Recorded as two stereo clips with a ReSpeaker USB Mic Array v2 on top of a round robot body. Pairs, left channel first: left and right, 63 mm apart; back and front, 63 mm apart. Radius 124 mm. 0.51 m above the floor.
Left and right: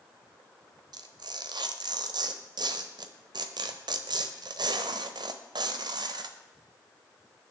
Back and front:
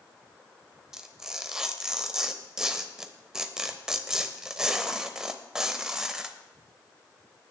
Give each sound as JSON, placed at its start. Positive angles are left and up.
{"t": 0.9, "sound": "tearing paper", "azimuth_deg": -80, "distance_m": 1.0}